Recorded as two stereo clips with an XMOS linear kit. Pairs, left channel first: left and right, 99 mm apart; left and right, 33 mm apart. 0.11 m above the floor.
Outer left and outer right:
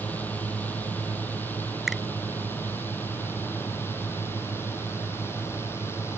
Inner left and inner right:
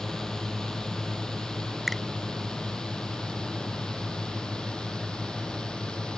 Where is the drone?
15° left (ahead or behind); by 6.2 s 25° left (ahead or behind).